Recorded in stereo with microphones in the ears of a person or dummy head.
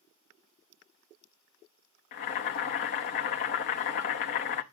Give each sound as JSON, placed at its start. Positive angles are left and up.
{"t": 2.1, "sound": "boiling", "side_deg": 45, "distance_m": 0.9}